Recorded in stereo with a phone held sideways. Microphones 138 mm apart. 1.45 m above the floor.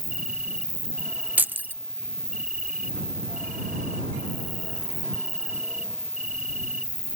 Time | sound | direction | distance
0.0 | an insect | 80° right | ?
1.4 | keys jangling | 10° right (ahead or behind) | ?